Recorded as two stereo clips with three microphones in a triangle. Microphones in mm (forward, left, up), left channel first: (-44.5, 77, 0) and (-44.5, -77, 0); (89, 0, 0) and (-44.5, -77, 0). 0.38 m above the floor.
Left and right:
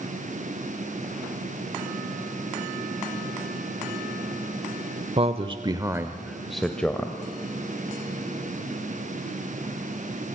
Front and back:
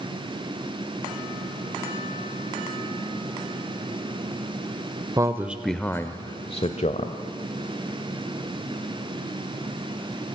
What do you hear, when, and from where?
5.2 s a man speaking: 95° right, 1.1 m; by 7.2 s 15° left, 1.5 m